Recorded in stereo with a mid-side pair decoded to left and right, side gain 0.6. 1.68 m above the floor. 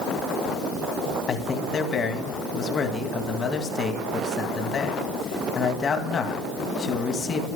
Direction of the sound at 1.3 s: 40° left.